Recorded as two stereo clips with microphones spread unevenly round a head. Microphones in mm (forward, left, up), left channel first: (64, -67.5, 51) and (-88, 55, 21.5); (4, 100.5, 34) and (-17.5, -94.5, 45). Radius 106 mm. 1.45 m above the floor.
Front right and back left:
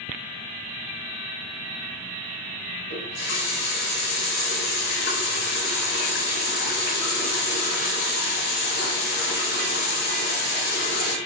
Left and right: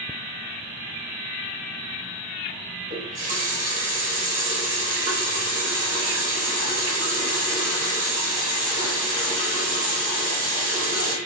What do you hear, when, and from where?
2.9 s a running tap: 50° right, 1.2 m